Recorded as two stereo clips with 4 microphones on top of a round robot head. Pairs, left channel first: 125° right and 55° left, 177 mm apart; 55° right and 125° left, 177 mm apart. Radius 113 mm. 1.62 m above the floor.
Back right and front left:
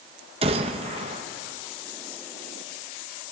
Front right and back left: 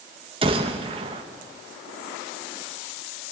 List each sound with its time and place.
0.4 s a gunshot: 85° left, 0.9 m